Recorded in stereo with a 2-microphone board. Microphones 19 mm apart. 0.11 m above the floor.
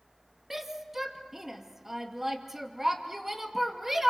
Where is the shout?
20° right (ahead or behind), 2.5 m.